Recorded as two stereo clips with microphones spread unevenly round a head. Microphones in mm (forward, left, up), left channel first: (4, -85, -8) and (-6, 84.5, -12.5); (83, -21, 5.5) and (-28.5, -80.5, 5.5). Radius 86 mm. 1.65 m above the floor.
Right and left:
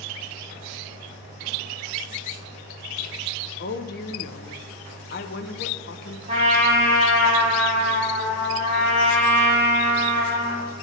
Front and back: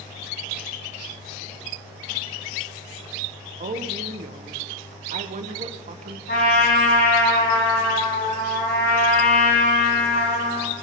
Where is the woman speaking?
120° right, 1.3 m.